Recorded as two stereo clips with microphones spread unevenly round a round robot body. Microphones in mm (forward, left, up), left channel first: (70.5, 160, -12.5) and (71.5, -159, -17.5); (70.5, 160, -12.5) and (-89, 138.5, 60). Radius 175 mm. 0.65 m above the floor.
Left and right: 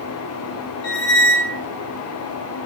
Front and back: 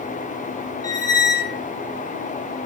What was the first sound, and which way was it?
A squeak, 100° left.